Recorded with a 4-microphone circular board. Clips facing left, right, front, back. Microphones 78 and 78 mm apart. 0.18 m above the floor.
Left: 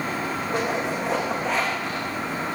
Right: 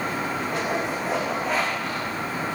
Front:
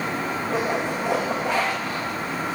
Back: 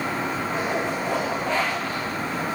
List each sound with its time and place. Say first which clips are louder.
0.5 s a zipper: left 3 dB, front 3 dB; straight ahead, 9 m